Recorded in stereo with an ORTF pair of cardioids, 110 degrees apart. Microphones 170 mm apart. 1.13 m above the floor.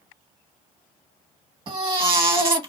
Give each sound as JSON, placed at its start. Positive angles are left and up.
{"t": 1.7, "sound": "a baby crying", "azimuth_deg": -30, "distance_m": 1.0}